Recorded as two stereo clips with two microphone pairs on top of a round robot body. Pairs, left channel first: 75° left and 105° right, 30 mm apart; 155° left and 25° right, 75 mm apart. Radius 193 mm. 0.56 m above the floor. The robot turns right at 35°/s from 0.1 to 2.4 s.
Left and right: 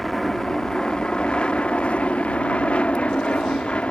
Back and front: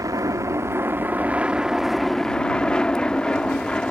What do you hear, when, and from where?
0.0 s an aircraft: straight ahead; by 3.9 s 80° left